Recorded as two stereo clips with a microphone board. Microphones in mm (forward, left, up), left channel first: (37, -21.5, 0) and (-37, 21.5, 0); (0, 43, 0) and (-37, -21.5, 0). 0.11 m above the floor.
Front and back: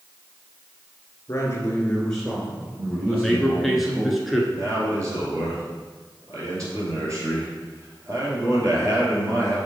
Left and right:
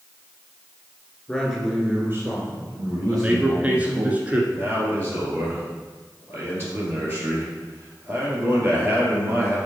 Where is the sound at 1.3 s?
10° right, 1.5 m; by 4.1 s 150° right, 3.5 m.